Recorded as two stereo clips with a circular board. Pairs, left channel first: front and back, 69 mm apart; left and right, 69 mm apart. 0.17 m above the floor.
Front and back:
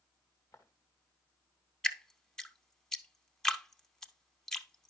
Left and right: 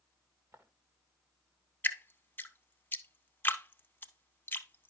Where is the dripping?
75° left, 0.6 m.